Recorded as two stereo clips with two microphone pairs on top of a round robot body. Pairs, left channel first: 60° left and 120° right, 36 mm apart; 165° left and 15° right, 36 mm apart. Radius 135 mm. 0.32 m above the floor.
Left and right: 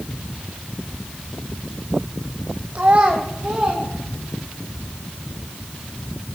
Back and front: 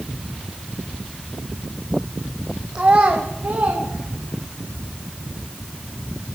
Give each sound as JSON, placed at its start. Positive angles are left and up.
{"t": 2.8, "sound": "a child speaking", "azimuth_deg": -75, "distance_m": 1.1}